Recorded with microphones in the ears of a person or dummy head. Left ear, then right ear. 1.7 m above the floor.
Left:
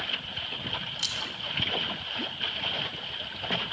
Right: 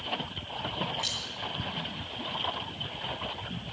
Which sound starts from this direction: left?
Keys jangling, at 1.0 s.